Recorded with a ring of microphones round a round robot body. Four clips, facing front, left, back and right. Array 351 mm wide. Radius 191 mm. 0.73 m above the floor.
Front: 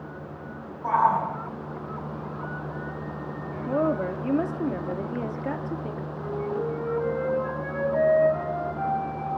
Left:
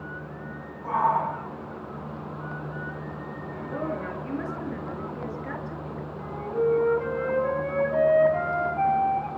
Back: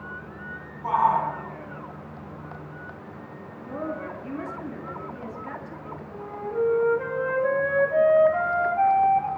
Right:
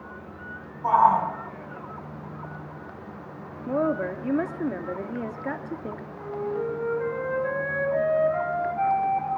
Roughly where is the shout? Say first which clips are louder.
Right 5 dB, even; right.